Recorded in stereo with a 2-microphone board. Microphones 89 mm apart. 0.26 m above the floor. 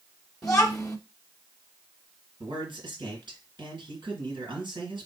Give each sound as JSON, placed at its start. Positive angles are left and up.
{"t": 0.4, "sound": "a child speaking", "side_deg": 5, "distance_m": 1.0}
{"t": 2.4, "sound": "a man speaking", "side_deg": -60, "distance_m": 2.5}